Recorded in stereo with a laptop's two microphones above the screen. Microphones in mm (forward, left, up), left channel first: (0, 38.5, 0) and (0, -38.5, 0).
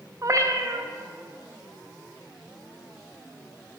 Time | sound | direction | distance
0.2 | a cat meowing | 40° right (ahead or behind) | 0.6 m